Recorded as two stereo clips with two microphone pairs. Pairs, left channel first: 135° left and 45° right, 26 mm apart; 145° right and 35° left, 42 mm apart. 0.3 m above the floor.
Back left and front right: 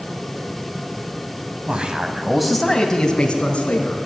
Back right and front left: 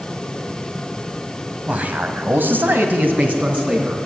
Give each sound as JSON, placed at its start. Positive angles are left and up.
{"t": 1.7, "sound": "a man speaking", "azimuth_deg": -15, "distance_m": 1.7}